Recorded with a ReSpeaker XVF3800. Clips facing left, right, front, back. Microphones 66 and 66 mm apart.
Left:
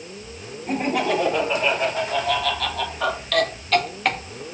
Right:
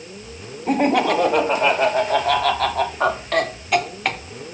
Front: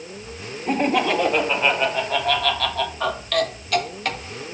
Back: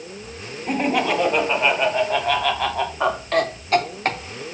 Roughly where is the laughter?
Right.